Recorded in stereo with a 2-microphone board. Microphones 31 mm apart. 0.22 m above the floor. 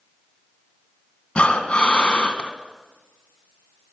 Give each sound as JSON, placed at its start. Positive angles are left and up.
{"t": 1.4, "sound": "breathing", "side_deg": 40, "distance_m": 2.0}